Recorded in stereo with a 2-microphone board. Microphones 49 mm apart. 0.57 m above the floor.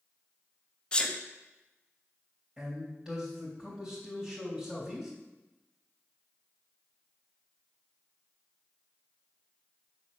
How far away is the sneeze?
About 1.1 m.